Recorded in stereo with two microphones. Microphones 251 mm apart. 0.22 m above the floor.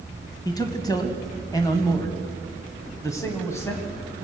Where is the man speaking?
15° left (ahead or behind), 1.7 m; by 3.9 s 10° left (ahead or behind), 1.9 m.